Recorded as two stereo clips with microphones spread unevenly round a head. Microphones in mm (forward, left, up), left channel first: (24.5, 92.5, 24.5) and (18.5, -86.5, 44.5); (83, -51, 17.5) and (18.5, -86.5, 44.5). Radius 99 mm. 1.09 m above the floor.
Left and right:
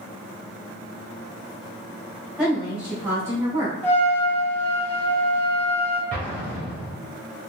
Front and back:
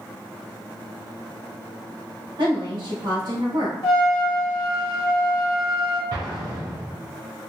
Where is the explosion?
165° left, 1.4 m.